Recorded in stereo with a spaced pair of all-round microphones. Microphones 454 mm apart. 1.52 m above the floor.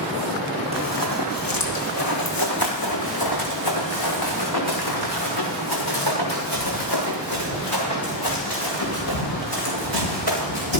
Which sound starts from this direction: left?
Running footsteps, at 0.7 s.